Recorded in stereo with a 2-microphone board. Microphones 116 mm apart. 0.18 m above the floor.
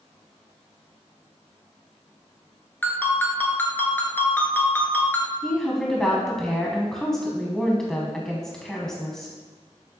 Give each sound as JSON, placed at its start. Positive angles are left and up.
{"t": 2.8, "sound": "a ringtone", "side_deg": 15, "distance_m": 1.3}
{"t": 5.4, "sound": "a woman speaking", "side_deg": 5, "distance_m": 1.0}